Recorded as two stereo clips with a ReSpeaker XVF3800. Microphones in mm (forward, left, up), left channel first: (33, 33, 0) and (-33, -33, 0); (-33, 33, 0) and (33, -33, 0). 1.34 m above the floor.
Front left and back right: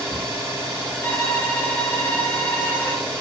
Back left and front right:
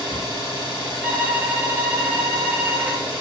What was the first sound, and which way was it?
An engine running, 165° left.